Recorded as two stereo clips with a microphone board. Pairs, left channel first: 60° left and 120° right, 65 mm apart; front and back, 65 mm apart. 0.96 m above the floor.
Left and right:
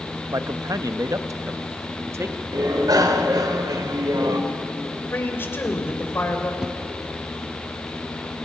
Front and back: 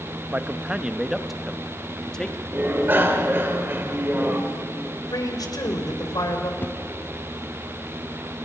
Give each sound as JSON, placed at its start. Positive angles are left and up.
{"t": 0.3, "sound": "a man speaking", "azimuth_deg": -120, "distance_m": 0.9}
{"t": 2.5, "sound": "a bicycle bell", "azimuth_deg": -125, "distance_m": 2.5}
{"t": 5.1, "sound": "a man speaking", "azimuth_deg": 5, "distance_m": 3.5}
{"t": 6.6, "sound": "a whoosh", "azimuth_deg": -45, "distance_m": 1.0}